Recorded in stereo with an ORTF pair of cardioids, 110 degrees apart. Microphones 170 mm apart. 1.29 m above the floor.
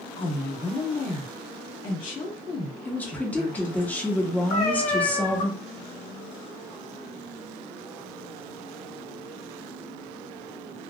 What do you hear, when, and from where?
0.2 s a woman speaking: 50° left, 2 m
2.9 s a woman speaking: 10° left, 1.1 m
4.5 s a cat meowing: 65° left, 2 m